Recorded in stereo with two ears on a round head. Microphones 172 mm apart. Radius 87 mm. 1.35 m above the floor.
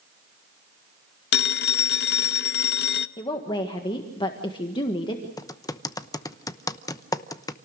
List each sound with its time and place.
1.3 s a phone ringing: 55° left (ahead or behind), 0.7 m
3.2 s a woman speaking: 25° left (ahead or behind), 1.6 m
5.4 s typing on a keyboard: 15° left (ahead or behind), 0.8 m